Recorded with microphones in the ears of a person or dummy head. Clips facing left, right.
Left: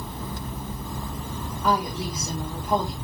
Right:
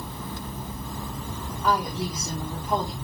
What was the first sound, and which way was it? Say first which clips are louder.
A woman speaking: left 1 dB; 5° right (ahead or behind).